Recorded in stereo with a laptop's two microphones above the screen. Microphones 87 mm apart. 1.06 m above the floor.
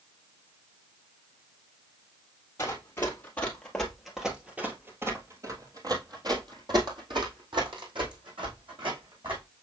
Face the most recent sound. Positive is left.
turn(degrees=-75)  # may be behind; listen again after turning